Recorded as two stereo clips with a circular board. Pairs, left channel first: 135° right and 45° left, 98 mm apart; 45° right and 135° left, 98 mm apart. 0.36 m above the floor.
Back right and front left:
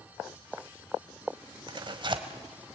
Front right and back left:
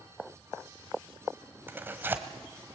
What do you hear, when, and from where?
1.7 s tearing paper: 70° left, 1.6 m